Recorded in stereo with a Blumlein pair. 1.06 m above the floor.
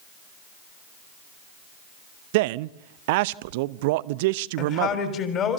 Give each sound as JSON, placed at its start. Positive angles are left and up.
{"t": 2.3, "sound": "a man speaking", "azimuth_deg": -50, "distance_m": 0.5}
{"t": 4.6, "sound": "a woman speaking", "azimuth_deg": 30, "distance_m": 3.5}